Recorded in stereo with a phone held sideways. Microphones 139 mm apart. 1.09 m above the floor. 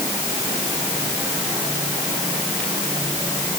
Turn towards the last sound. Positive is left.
No sound to turn to.